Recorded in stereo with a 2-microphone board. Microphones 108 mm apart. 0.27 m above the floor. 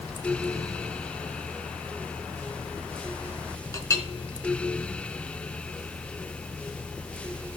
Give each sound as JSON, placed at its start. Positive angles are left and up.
{"t": 3.7, "sound": "a clink", "side_deg": 30, "distance_m": 2.5}